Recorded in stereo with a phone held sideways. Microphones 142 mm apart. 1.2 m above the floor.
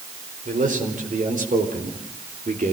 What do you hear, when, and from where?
0.5 s a man speaking: 70° right (ahead or behind), 5 m